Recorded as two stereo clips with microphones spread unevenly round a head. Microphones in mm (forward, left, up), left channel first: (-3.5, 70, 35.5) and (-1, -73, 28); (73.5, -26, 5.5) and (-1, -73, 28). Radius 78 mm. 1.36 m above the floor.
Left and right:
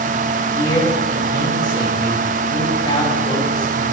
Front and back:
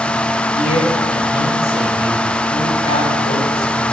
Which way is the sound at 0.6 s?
30° left.